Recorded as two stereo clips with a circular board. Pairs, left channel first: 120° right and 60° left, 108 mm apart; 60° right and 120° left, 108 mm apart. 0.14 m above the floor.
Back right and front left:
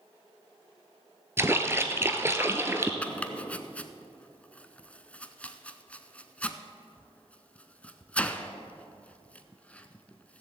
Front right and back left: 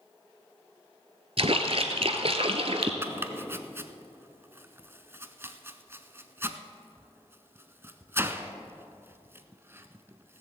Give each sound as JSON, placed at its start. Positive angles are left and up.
{"t": 1.4, "sound": "a splash", "azimuth_deg": 125, "distance_m": 1.0}
{"t": 3.0, "sound": "chopping", "azimuth_deg": 170, "distance_m": 0.7}